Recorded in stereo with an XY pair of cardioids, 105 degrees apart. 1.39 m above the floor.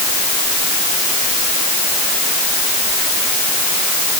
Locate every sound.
Only background noise.